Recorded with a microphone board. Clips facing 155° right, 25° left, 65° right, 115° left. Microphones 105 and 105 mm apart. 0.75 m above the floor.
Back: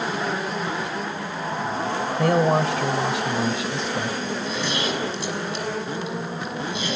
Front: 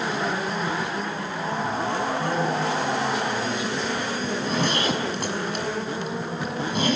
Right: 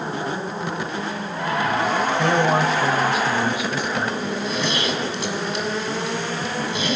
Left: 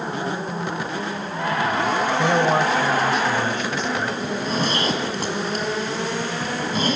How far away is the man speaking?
About 2.5 m.